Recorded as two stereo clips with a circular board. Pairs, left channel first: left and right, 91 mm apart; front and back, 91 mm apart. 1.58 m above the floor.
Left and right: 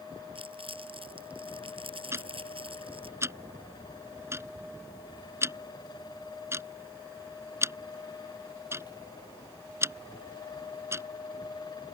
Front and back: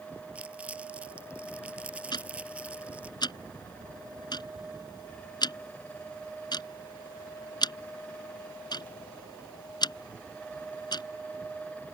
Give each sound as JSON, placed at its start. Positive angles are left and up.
{"t": 0.3, "sound": "crumpling", "azimuth_deg": -105}
{"t": 2.1, "sound": "ticking", "azimuth_deg": -30}